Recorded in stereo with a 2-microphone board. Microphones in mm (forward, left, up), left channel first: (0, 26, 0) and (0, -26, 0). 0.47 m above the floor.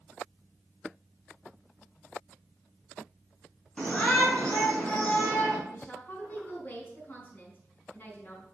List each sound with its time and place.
3.8 s a shout: 15° left (ahead or behind), 4.5 m
5.7 s a woman speaking: 35° left (ahead or behind), 5 m